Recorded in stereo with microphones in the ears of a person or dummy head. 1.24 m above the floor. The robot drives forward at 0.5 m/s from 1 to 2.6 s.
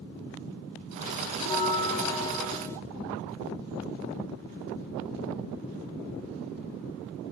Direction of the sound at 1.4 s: 30° left (ahead or behind).